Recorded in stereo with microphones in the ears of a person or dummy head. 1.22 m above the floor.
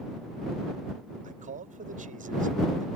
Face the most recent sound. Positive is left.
turn(degrees=-30)  # may be behind; listen again after turning